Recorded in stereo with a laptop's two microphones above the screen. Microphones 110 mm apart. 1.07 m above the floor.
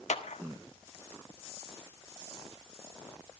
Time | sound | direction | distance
0.1 | a clap | 85° left | 1.4 m